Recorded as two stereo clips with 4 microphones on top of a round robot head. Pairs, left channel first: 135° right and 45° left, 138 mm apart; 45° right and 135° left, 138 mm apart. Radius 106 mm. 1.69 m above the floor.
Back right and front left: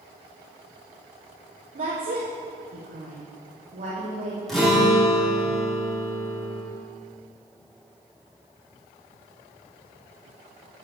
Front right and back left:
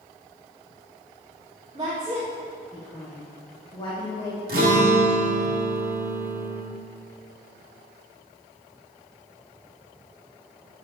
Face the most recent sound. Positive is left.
turn(degrees=135)